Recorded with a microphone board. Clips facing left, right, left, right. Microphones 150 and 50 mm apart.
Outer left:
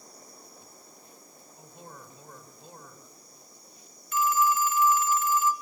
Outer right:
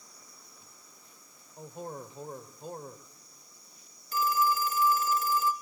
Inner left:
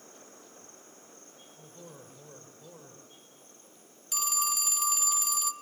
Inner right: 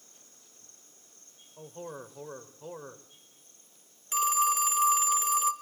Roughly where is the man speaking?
Right.